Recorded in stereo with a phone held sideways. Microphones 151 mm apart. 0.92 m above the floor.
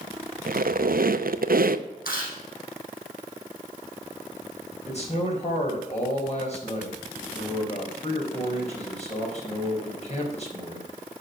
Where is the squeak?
75° right (ahead or behind), 0.6 m.